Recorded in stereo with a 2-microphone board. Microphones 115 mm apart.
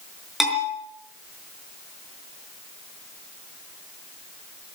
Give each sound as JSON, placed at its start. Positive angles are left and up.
{"t": 0.4, "sound": "a bell", "side_deg": 0, "distance_m": 5.5}